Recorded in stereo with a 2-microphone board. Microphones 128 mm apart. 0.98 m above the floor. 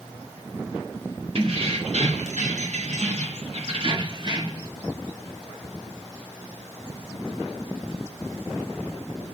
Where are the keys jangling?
55° right (ahead or behind), 1.1 m; by 4.7 s 30° right (ahead or behind), 1.2 m.